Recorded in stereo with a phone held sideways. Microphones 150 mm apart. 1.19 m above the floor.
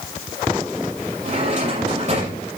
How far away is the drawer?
About 7.5 m.